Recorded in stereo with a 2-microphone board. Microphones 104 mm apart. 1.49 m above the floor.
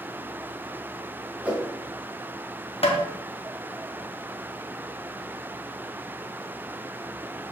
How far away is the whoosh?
About 1.4 m.